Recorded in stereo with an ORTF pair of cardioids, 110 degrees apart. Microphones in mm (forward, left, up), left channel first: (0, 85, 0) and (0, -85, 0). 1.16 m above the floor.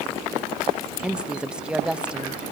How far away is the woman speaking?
About 0.8 m.